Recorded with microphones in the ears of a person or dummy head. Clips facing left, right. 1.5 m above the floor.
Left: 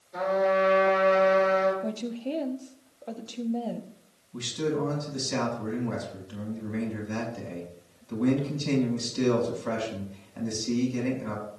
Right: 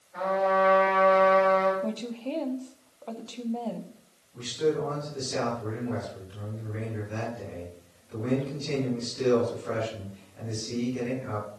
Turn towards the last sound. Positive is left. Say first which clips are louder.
# right 2 dB
turn(degrees=90)